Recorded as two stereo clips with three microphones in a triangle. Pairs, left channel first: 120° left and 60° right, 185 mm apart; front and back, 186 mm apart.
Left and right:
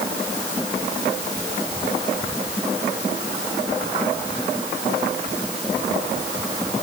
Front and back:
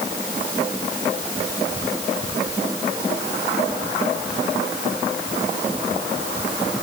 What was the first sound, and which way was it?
Only background noise.